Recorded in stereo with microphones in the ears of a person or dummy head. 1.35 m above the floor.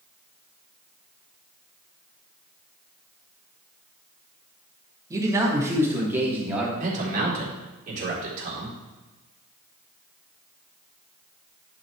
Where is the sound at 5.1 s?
15° right (ahead or behind), 2.5 m; by 6.7 s centre (ahead or behind), 3 m.